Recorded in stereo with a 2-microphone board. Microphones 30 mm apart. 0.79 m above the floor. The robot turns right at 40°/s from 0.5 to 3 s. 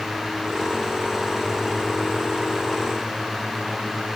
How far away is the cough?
No cough in this recording.